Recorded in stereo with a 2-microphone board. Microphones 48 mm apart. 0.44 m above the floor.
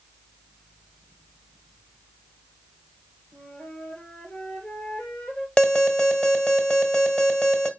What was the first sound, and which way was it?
A flute, 25° left (ahead or behind).